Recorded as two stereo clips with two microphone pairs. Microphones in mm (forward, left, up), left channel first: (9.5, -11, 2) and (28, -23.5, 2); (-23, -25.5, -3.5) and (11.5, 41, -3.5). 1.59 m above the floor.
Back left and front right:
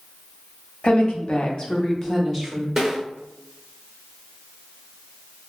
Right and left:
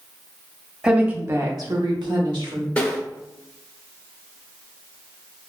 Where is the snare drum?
70° right, 0.8 m.